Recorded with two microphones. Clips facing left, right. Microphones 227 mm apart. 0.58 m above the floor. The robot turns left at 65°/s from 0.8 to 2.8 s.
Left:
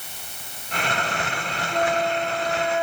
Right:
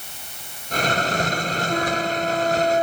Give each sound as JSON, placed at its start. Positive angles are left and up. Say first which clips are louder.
{"t": 1.7, "sound": "a flute", "louder": "left 2 dB", "azimuth_deg": -70, "distance_m": 0.9}